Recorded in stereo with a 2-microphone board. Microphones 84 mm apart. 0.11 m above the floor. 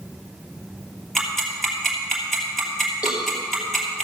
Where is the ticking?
Centre (ahead or behind), 3 m.